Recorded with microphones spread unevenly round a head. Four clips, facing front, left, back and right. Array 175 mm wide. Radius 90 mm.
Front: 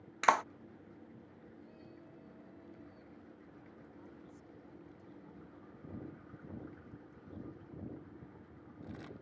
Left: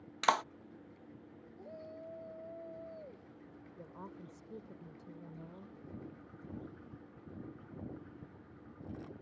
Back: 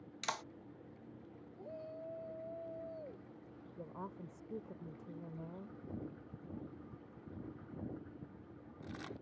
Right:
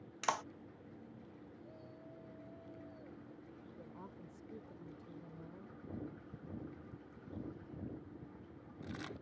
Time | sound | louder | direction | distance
0.2 | a clap | left 7 dB, front 14 dB | 25° left | ?
1.6 | a shout | left 6 dB, back 11 dB | 145° left | ?
3.8 | a woman speaking | left 5 dB, back 11 dB | 165° left | ?